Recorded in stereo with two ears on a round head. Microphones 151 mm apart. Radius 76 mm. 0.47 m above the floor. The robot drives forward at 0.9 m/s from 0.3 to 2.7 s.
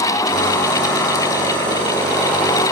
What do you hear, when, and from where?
Only background noise.